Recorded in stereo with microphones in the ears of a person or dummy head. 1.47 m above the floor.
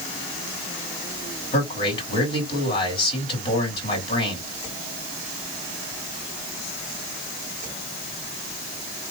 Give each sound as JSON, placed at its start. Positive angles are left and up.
{"t": 1.5, "sound": "a man speaking", "side_deg": 35, "distance_m": 2.5}